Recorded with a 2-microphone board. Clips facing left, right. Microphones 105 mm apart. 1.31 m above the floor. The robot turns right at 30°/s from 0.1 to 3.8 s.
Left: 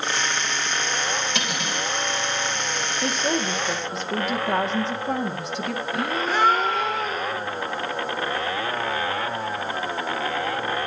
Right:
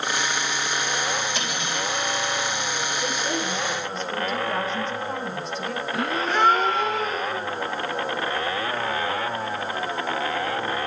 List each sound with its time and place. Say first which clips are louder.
1.4 s cutlery clinking: even; 80° left, 8.5 m; by 1.9 s 65° left (ahead or behind), 8.5 m
3.0 s a woman speaking: left 5 dB; 75° left (ahead or behind), 2.5 m; by 5.8 s 80° left, 2.5 m
5.9 s a gasp: even; centre (ahead or behind), 1.2 m